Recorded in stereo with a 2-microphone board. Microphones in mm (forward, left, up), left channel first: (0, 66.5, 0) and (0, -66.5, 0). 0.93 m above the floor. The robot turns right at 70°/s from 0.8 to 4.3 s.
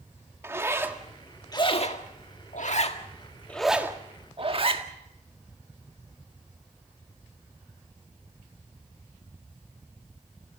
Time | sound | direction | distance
0.4 | a zipper | 20° right (ahead or behind) | 1.7 m